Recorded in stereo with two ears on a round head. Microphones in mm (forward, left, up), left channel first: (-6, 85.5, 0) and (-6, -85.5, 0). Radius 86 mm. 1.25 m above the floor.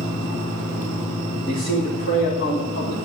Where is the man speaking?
65° left (ahead or behind), 3 m.